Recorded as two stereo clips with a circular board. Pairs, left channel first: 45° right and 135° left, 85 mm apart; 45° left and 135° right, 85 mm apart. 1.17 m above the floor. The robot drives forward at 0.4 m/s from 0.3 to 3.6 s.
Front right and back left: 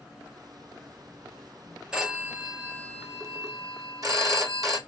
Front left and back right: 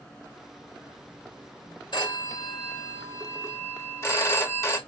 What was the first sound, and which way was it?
A phone ringing, 60° left.